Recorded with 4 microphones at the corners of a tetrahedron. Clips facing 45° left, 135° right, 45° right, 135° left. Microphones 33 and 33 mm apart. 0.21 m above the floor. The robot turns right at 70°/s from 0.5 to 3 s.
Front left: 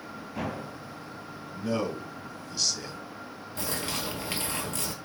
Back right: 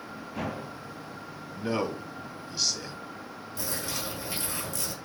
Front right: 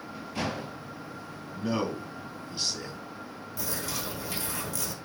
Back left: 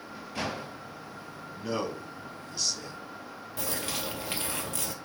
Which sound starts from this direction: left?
A bird, at 3.6 s.